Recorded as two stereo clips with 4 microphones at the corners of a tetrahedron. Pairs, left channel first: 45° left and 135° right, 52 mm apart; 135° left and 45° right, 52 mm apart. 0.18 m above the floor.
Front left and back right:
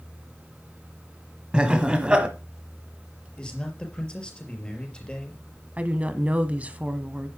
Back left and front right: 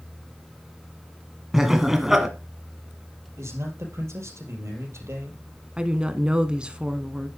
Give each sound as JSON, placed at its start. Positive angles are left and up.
{"t": 1.5, "sound": "laughter", "azimuth_deg": -110, "distance_m": 1.4}
{"t": 3.4, "sound": "a man speaking", "azimuth_deg": -25, "distance_m": 4.5}
{"t": 5.8, "sound": "a woman speaking", "azimuth_deg": -100, "distance_m": 1.2}